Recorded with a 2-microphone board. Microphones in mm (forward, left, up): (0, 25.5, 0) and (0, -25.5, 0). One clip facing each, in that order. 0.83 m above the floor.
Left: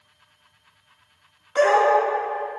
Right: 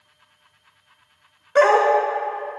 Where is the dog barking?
65° right (ahead or behind), 0.9 m.